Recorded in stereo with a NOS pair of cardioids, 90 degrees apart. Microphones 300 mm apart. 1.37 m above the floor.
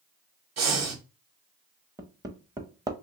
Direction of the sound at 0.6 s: 60° right.